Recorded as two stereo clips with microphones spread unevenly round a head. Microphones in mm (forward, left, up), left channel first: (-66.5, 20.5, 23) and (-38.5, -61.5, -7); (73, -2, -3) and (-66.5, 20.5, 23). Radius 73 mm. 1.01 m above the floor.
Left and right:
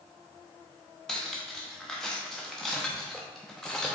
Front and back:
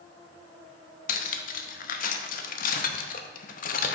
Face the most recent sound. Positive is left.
turn(degrees=25)